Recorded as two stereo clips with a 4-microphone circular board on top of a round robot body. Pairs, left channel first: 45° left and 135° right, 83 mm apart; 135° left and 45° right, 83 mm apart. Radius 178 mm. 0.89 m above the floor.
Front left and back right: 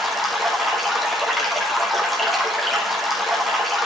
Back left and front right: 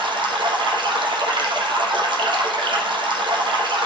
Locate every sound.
0.0 s running water: 45° right, 1.4 m